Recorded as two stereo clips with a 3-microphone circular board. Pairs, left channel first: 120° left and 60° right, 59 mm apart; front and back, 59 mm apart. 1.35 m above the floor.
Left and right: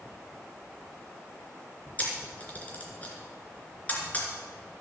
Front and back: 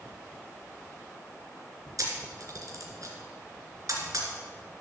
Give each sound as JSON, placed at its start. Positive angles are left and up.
{"t": 2.0, "sound": "a camera shutter", "azimuth_deg": -175, "distance_m": 2.5}